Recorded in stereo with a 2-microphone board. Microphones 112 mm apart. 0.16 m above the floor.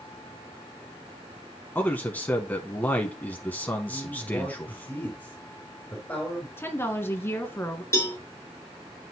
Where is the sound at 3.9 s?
15° left (ahead or behind), 3.5 m.